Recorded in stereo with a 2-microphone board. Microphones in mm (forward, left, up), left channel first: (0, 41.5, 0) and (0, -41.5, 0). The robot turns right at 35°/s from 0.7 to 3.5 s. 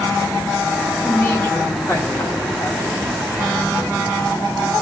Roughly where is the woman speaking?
Ahead left.